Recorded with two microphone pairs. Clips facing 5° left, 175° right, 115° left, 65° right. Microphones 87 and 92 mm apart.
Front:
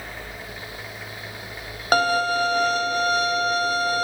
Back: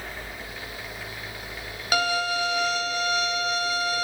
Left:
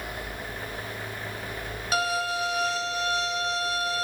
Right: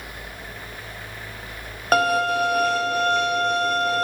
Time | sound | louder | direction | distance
1.9 | a violin | front 5 dB, right 8 dB | 35° right | 1.0 m